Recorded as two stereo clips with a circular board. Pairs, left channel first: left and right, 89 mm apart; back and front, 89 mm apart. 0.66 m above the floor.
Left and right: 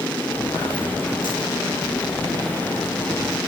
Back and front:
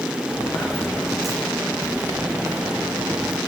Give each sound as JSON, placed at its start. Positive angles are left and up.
{"t": 0.3, "sound": "footsteps", "azimuth_deg": 105, "distance_m": 3.0}